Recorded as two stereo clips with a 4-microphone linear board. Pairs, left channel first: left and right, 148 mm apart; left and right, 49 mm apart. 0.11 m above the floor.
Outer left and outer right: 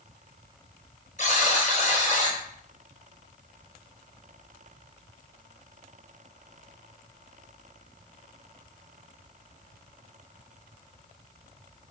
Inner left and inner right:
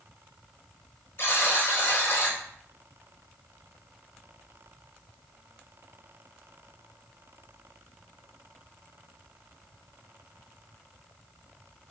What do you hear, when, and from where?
1.2 s a buzzer: 50° left (ahead or behind), 1.5 m